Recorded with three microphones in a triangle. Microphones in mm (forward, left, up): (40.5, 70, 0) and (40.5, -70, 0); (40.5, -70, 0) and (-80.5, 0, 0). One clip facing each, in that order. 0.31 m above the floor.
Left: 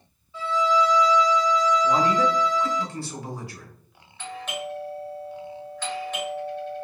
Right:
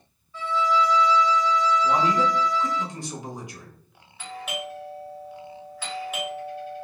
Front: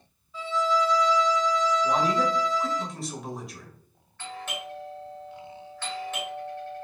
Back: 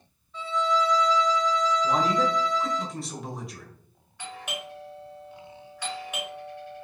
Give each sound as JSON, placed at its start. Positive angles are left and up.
{"t": 0.3, "sound": "a violin", "azimuth_deg": 45, "distance_m": 1.5}
{"t": 1.8, "sound": "a man speaking", "azimuth_deg": -120, "distance_m": 0.9}
{"t": 4.2, "sound": "a doorbell", "azimuth_deg": -160, "distance_m": 1.8}